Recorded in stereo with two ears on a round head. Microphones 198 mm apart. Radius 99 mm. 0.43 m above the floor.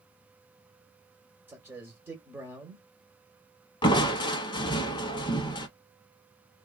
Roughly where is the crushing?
Left.